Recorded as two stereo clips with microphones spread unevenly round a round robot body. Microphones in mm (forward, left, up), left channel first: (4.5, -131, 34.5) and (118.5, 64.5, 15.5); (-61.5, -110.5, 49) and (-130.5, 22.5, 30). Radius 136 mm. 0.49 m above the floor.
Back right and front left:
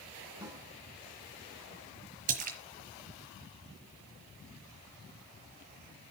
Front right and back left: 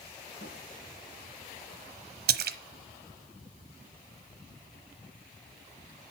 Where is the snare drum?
15° right, 3 m.